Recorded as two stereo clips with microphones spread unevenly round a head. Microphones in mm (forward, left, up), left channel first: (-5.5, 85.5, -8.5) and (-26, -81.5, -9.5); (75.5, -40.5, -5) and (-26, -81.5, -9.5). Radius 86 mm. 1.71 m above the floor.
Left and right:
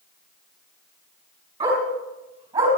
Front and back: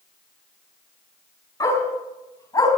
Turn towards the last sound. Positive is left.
turn(degrees=-40)